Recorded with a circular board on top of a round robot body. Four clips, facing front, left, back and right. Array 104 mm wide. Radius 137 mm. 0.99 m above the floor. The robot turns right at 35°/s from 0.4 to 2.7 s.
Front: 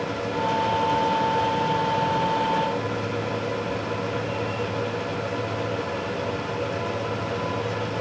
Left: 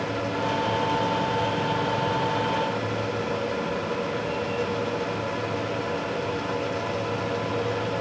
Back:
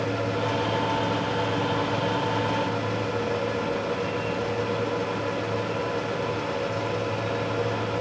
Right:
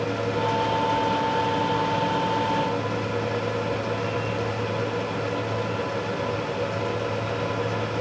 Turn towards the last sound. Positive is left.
No sound to turn to.